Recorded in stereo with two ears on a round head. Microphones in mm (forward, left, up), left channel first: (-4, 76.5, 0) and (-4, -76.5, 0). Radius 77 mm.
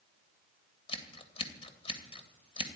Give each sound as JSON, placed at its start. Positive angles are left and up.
{"t": 0.9, "sound": "scissors", "side_deg": 30, "distance_m": 2.5}